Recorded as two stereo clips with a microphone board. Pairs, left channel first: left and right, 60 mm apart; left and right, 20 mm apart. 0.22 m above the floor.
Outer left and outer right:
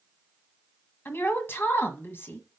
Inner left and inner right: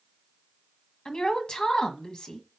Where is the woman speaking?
40° left (ahead or behind), 1.6 m.